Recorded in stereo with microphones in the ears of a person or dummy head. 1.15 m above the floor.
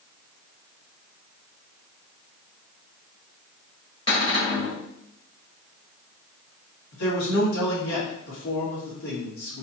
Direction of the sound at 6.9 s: 85° left.